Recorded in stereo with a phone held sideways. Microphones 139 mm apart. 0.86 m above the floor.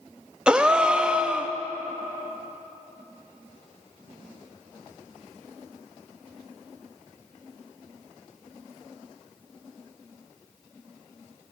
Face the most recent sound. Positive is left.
turn(degrees=-5)  # may be behind; listen again after turning